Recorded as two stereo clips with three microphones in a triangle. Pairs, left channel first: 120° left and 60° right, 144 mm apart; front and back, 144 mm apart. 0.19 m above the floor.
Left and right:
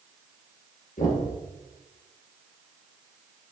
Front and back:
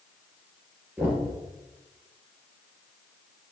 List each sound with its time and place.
1.0 s knocking: 100° left, 2.5 m